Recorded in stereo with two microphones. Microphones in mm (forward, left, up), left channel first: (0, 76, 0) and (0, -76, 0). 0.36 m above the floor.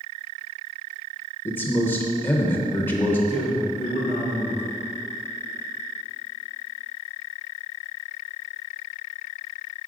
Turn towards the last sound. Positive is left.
turn(degrees=-60)  # may be behind; listen again after turning